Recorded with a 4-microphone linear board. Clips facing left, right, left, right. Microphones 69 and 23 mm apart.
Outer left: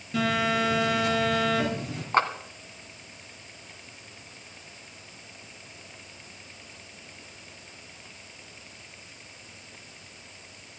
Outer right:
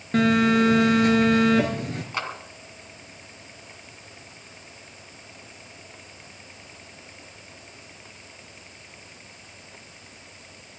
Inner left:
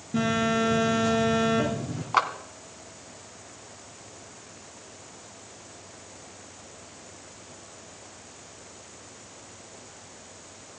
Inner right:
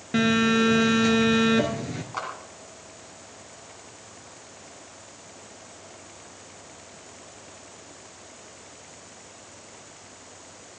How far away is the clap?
About 1.8 m.